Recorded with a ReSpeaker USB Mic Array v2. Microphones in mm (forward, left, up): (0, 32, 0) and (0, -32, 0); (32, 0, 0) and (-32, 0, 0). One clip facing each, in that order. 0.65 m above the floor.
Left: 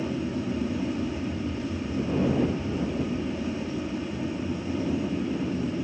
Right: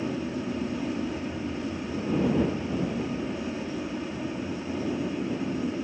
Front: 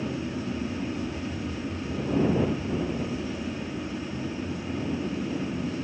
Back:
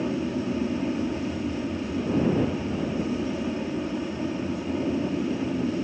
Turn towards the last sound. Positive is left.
turn(degrees=-175)